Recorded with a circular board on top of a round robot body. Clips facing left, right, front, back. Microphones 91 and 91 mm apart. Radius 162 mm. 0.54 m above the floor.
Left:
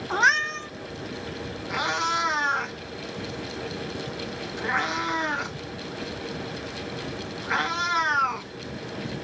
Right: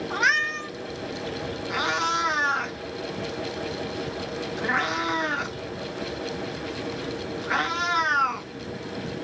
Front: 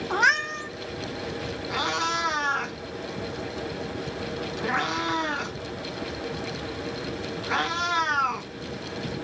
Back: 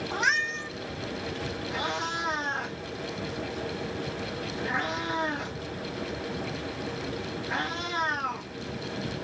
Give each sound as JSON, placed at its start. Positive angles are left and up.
{"t": 0.1, "sound": "a cat meowing", "azimuth_deg": 35, "distance_m": 0.7}
{"t": 1.7, "sound": "a cat meowing", "azimuth_deg": 0, "distance_m": 1.2}